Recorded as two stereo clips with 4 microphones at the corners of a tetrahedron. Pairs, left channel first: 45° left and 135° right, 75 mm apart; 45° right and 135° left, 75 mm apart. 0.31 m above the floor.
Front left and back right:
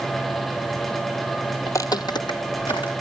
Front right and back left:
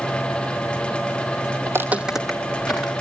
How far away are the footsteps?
About 0.6 m.